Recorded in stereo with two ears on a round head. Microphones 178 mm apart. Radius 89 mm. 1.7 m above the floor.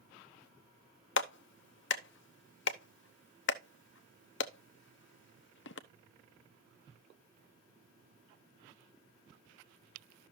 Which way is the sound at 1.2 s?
65° left (ahead or behind).